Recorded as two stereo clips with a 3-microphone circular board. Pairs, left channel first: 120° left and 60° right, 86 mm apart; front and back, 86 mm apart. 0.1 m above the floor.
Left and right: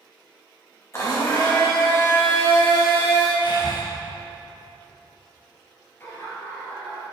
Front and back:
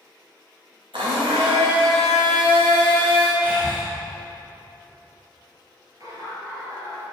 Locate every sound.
0.9 s a blender: 175° left, 3 m
3.4 s breathing: 110° left, 3 m
6.0 s laughter: 170° left, 1.6 m